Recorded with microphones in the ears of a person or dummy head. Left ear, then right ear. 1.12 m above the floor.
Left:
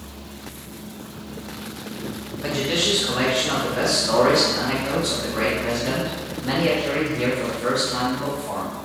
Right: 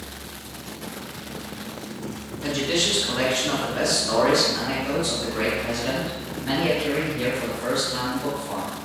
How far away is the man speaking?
About 0.7 m.